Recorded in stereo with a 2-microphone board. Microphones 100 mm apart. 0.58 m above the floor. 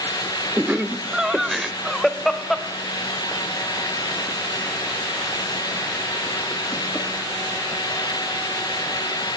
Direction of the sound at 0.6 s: 15° right (ahead or behind).